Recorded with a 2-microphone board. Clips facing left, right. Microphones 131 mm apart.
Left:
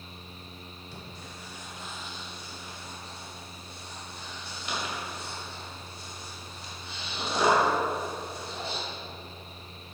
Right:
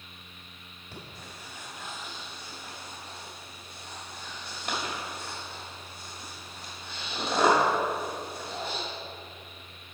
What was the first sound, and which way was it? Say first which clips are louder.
Breathing: right 2 dB; 55° right (ahead or behind).